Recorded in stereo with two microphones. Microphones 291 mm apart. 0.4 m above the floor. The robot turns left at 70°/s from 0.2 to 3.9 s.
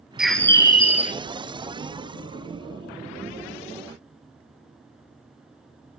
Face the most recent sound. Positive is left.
turn(degrees=-75)